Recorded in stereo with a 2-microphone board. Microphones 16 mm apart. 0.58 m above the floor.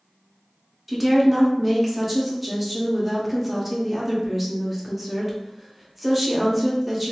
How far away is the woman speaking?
About 0.6 m.